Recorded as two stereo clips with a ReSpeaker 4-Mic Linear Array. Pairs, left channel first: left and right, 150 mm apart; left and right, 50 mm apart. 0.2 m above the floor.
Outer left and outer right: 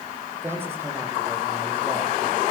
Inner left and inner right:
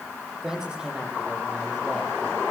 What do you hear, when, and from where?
0.4 s a man speaking: 15° right (ahead or behind), 7 m